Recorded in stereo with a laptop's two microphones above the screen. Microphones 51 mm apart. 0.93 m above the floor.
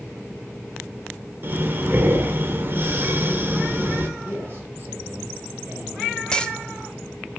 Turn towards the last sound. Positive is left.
turn(degrees=15)  # may be behind; listen again after turning